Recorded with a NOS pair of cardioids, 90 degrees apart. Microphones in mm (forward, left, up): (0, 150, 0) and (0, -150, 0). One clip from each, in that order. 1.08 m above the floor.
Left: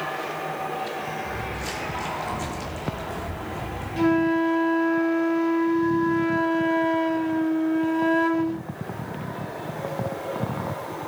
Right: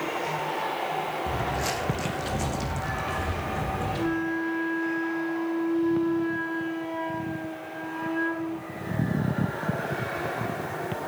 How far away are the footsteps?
About 3.5 m.